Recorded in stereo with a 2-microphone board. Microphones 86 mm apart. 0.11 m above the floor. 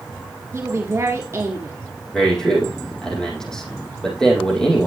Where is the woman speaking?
35° right (ahead or behind), 1.5 m.